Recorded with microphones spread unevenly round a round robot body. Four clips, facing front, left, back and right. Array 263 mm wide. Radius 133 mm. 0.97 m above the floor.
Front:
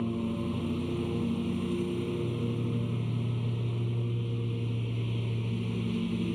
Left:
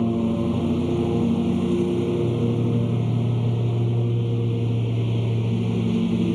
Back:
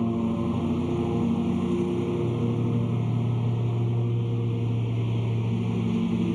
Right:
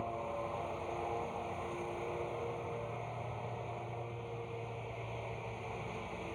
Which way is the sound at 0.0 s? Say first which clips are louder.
Left 17 dB, back 6 dB; 110° left.